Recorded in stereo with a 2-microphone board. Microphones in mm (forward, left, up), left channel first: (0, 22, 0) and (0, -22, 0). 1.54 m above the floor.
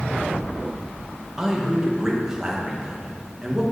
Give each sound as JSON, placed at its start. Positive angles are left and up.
{"t": 1.4, "sound": "a man speaking", "side_deg": -10, "distance_m": 2.0}